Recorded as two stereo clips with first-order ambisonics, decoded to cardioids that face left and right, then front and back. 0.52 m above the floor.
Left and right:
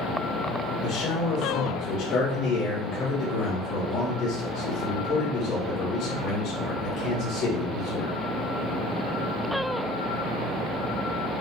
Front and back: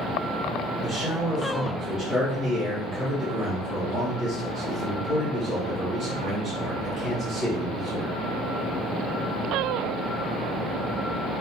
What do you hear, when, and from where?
0.8 s a man speaking: 70° left, 1.4 m